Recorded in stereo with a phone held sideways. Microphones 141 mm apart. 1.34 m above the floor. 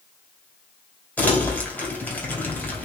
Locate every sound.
1.2 s crumpling: 10° left (ahead or behind), 3 m